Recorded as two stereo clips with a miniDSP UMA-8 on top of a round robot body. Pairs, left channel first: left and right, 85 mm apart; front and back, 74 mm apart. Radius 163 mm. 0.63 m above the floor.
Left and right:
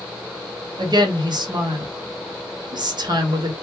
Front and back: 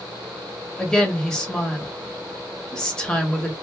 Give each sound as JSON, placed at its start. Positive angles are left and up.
{"t": 0.8, "sound": "a woman speaking", "azimuth_deg": -75, "distance_m": 1.6}